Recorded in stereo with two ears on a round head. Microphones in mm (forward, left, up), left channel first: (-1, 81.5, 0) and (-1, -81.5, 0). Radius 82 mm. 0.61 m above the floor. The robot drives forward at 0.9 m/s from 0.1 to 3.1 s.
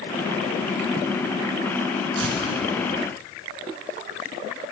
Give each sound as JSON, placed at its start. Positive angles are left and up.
{"t": 2.1, "sound": "tearing paper", "side_deg": -70, "distance_m": 5.5}